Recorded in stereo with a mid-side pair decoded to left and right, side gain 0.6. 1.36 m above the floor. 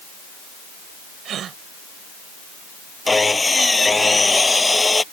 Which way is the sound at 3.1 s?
15° left.